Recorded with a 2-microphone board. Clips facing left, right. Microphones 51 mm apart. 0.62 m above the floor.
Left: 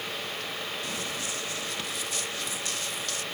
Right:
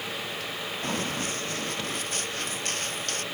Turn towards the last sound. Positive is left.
turn(degrees=-45)  # may be behind; listen again after turning